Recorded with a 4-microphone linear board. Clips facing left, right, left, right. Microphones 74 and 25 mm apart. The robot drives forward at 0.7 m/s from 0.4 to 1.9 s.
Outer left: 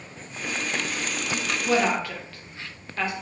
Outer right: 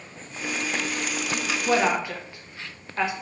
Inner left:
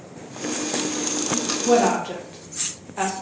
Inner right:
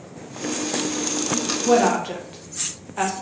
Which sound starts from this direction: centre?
A woman speaking, at 1.6 s.